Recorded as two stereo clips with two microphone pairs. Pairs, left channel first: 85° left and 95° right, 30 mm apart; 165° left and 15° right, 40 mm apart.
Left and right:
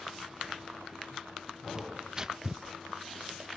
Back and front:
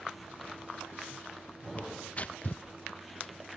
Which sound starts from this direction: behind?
Tearing paper, at 1.8 s.